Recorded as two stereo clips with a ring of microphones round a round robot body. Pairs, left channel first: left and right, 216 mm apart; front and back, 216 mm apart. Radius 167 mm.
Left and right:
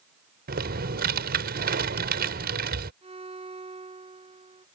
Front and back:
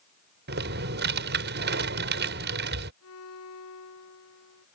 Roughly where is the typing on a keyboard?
Behind right.